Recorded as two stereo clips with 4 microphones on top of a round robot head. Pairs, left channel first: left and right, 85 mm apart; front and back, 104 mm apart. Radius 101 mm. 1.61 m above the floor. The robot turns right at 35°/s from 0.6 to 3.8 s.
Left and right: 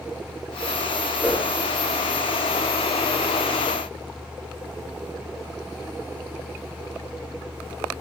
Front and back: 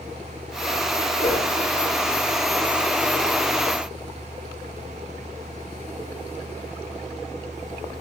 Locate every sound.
1.2 s a whoosh: 30° right, 2.5 m; by 1.5 s 20° right, 2.5 m